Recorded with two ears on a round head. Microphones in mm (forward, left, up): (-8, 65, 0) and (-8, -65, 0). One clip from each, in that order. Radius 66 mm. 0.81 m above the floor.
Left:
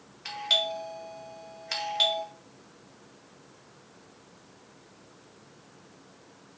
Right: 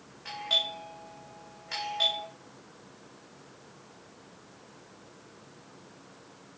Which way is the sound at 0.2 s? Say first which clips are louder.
Left 2 dB; 65° left (ahead or behind).